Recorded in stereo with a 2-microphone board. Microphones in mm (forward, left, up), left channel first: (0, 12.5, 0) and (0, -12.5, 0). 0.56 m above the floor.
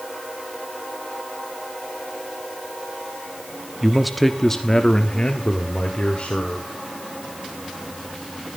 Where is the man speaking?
10° right (ahead or behind), 1.0 m; by 6.7 s 50° left (ahead or behind), 2 m.